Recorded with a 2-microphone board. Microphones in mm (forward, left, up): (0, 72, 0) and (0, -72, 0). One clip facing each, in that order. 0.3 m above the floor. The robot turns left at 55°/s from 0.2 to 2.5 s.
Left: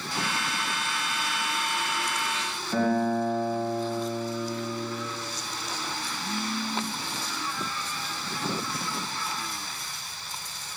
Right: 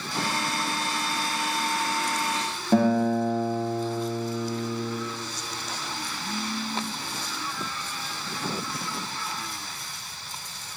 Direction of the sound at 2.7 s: 65° right (ahead or behind).